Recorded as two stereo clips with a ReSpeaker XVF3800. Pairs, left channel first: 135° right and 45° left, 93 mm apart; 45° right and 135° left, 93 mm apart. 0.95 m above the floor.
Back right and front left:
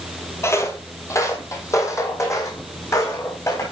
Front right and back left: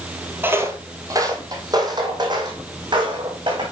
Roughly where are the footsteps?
Behind.